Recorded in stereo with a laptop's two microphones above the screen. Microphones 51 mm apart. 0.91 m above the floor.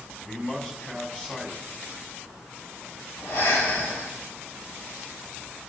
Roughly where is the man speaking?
Left.